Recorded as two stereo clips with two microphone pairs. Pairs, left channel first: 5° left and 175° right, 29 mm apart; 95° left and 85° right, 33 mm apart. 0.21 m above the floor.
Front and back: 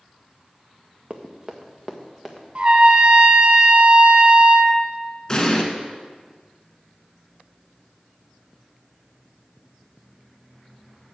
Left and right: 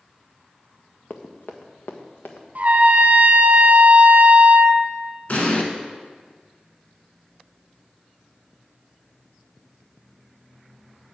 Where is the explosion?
70° left, 1.6 m.